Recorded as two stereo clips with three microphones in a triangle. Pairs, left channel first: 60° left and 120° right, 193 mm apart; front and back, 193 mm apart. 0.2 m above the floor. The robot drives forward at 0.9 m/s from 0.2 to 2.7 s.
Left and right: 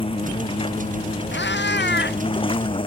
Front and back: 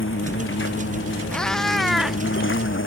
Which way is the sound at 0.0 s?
5° right.